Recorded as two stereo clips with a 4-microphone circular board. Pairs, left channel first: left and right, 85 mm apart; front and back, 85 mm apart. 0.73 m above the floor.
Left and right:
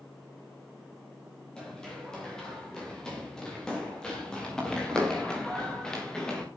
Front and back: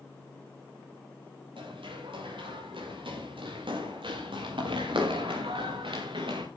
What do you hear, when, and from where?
1.6 s running footsteps: 170° left, 9.5 m